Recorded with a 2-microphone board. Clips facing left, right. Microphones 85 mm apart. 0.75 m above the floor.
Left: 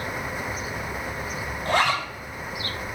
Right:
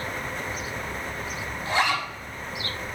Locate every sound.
1.6 s a zipper: 60° left (ahead or behind), 5.5 m